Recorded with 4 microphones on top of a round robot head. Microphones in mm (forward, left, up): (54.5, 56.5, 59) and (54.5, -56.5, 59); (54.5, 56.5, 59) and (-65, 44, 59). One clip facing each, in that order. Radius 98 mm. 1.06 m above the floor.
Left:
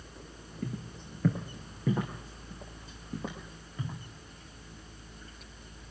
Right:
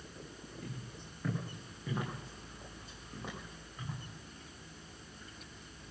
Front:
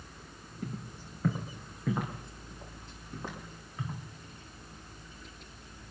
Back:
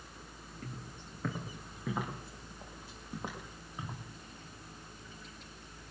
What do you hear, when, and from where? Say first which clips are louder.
0.6 s footsteps: left 12 dB, front 7 dB; 85° left, 3 m; by 4.0 s 115° left, 4 m